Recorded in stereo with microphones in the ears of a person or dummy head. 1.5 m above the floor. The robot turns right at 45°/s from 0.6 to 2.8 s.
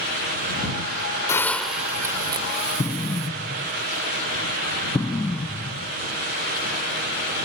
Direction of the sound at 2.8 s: 5° left (ahead or behind).